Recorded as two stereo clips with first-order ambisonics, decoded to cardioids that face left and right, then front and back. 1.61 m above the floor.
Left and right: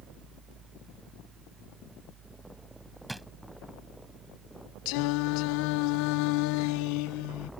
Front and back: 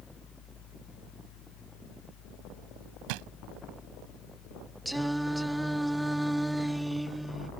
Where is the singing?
90° left.